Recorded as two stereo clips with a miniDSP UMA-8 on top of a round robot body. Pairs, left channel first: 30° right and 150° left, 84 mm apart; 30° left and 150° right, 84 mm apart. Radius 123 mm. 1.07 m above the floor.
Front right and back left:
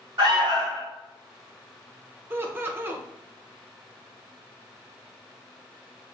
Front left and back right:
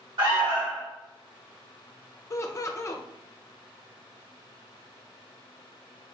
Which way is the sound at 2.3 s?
85° left.